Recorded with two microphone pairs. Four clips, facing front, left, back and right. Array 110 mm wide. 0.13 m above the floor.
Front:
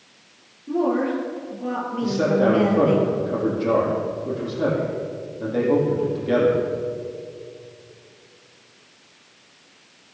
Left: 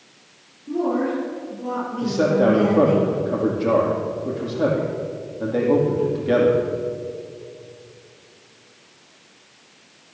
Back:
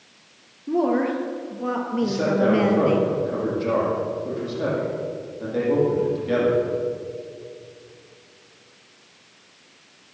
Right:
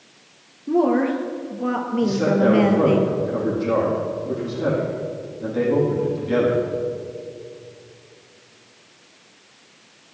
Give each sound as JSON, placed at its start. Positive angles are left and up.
{"t": 0.7, "sound": "a woman speaking", "azimuth_deg": -120, "distance_m": 3.0}
{"t": 2.0, "sound": "a man speaking", "azimuth_deg": 85, "distance_m": 6.5}